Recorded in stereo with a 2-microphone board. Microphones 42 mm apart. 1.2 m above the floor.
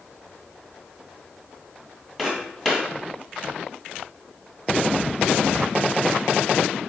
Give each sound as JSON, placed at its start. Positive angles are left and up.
{"t": 2.2, "sound": "footsteps", "side_deg": -10, "distance_m": 1.7}